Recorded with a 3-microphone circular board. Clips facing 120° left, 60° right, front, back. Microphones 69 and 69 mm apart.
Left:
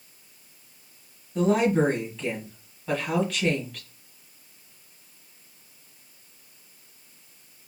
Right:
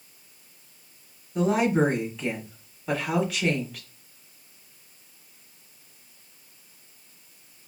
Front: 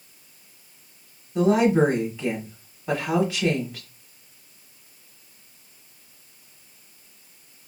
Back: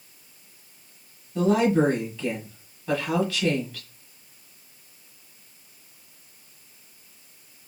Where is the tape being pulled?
I don't hear tape being pulled.